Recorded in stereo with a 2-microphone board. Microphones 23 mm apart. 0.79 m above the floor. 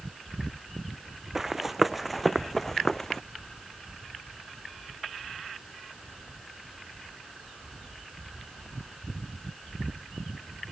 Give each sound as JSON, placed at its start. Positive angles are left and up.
{"t": 1.4, "sound": "running footsteps", "side_deg": -15}